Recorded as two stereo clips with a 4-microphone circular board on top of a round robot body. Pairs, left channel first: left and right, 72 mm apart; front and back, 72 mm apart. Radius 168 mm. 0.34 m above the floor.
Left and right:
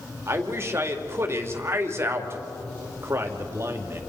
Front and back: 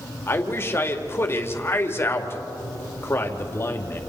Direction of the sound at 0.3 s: 45° right.